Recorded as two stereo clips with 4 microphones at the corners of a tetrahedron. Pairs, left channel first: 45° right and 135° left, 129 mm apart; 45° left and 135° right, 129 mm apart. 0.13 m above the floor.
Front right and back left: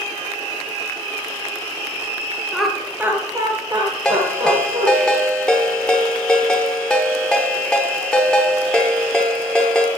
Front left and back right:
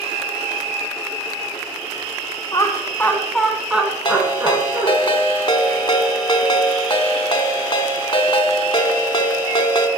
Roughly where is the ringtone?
Ahead left.